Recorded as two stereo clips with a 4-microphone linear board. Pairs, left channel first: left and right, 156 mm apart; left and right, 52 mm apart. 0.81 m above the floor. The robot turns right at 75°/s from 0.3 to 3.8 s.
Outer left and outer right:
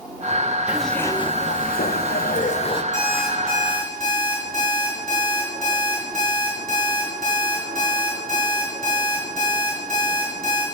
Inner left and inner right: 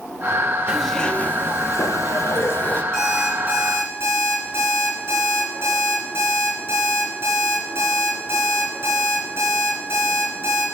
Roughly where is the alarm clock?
Behind.